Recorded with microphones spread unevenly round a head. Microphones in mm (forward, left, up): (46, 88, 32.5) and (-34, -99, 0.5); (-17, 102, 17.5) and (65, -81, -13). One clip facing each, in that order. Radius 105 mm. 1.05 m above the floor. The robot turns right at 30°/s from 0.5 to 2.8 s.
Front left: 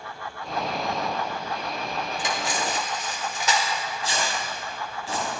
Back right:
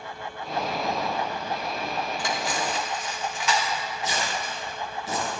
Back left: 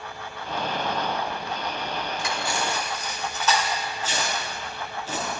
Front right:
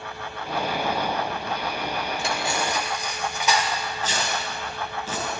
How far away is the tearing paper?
About 5 m.